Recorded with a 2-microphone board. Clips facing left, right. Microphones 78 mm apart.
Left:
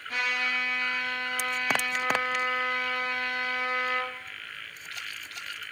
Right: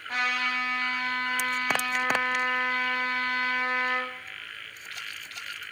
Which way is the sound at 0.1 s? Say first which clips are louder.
Right 2 dB; 30° right (ahead or behind).